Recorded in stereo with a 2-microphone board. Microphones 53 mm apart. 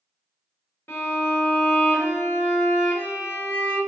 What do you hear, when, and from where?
0.9 s a violin: 35° left (ahead or behind), 1.3 m